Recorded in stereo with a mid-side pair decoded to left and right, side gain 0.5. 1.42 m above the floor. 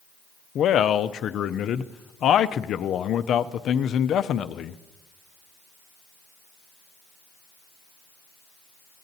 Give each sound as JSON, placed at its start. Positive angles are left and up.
{"t": 0.6, "sound": "a man speaking", "azimuth_deg": 60, "distance_m": 0.5}